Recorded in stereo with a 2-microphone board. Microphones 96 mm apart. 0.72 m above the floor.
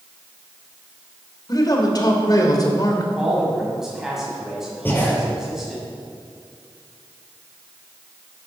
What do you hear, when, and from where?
1.5 s a man speaking: 45° left (ahead or behind), 2.5 m
3.1 s a man speaking: 5° right (ahead or behind), 5.5 m
4.8 s breathing: 20° left (ahead or behind), 4 m